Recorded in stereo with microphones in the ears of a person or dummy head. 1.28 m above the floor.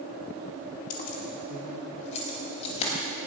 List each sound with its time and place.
0.9 s keys jangling: 55° left (ahead or behind), 1.8 m; by 2.9 s 40° left (ahead or behind), 5 m